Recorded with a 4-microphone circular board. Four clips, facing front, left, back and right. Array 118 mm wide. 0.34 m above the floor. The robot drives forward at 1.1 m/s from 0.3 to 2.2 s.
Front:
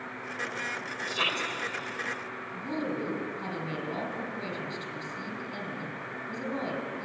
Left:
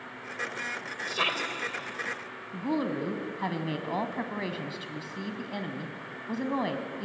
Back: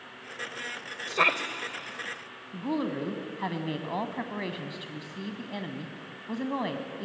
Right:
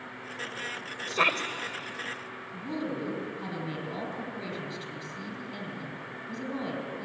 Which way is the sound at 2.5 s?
130° left.